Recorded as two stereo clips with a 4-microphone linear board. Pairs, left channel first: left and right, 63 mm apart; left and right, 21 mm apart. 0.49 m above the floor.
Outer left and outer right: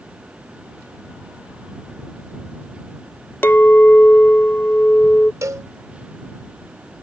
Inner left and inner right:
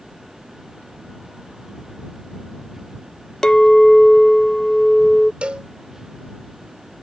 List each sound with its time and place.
3.4 s a clink: 35° left (ahead or behind)
5.4 s a cowbell: 60° right (ahead or behind)